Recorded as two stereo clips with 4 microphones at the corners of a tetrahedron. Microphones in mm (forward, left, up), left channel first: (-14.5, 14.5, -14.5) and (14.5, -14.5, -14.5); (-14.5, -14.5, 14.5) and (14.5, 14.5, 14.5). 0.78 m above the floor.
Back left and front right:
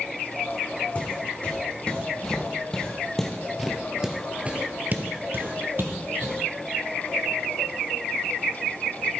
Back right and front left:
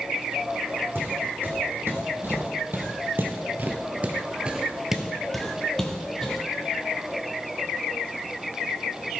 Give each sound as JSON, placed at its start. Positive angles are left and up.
{"t": 0.9, "sound": "footsteps", "azimuth_deg": 75, "distance_m": 2.5}